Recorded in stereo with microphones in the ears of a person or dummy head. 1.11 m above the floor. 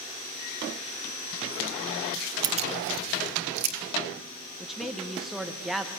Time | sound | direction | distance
2.4 | keys jangling | 25° right (ahead or behind) | 0.5 m
4.6 | a man speaking | centre (ahead or behind) | 0.8 m